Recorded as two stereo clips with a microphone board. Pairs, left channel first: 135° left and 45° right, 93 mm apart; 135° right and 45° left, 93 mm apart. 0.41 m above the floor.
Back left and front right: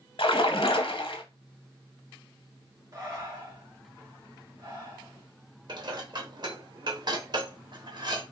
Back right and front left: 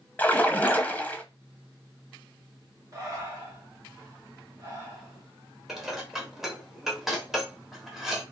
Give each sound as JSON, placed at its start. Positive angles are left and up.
{"t": 0.2, "sound": "a splash", "azimuth_deg": 150, "distance_m": 0.6}
{"t": 2.9, "sound": "breathing", "azimuth_deg": 0, "distance_m": 1.2}
{"t": 5.7, "sound": "dishes clattering", "azimuth_deg": -40, "distance_m": 0.9}